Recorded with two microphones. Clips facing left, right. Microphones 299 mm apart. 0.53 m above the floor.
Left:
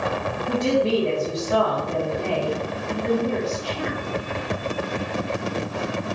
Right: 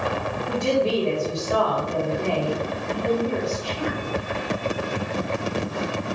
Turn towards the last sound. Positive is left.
turn(degrees=20)  # may be behind; listen again after turning